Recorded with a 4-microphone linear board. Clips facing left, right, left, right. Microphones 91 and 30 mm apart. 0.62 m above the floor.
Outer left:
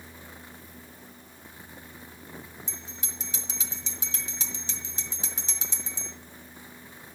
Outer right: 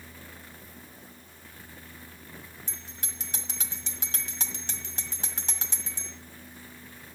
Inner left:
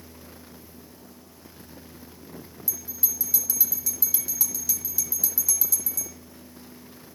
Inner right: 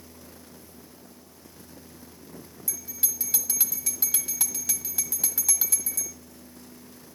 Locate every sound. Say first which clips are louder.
2.7 s a bell: outer left 2 dB, even; 55° right (ahead or behind), 1.9 m